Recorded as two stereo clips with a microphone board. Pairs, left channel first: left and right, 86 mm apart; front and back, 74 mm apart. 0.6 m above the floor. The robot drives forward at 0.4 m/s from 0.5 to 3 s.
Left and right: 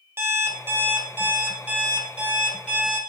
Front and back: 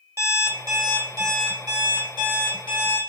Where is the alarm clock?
145° right, 0.7 m; by 3.0 s 165° right, 1.6 m.